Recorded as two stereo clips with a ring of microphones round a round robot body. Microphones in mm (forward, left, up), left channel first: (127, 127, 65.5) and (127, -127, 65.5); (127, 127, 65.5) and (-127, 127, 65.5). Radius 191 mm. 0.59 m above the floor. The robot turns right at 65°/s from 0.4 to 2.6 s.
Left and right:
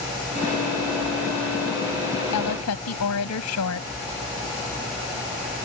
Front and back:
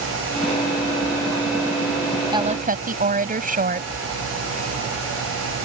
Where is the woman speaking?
105° left; by 3.9 s 125° left.